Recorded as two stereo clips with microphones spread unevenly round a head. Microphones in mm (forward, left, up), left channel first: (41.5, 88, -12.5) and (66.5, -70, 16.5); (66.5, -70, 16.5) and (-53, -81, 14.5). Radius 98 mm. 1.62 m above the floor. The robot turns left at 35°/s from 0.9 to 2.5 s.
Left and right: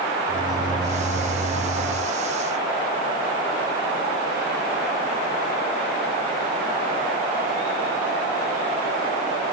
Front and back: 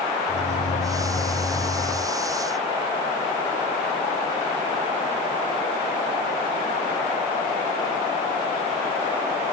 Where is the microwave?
15° right, 3.5 m; by 2.1 s 55° right, 3.5 m.